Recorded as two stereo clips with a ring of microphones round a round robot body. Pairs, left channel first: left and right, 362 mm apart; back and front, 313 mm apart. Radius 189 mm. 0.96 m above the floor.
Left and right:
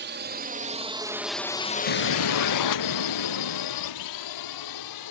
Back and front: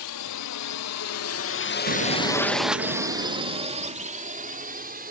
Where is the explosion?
55° left.